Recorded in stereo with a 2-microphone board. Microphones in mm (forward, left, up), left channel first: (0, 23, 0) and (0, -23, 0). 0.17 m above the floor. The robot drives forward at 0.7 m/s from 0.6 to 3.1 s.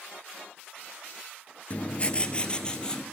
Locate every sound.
1.7 s writing: 30° left (ahead or behind), 1.0 m; by 3.0 s 15° left (ahead or behind), 1.8 m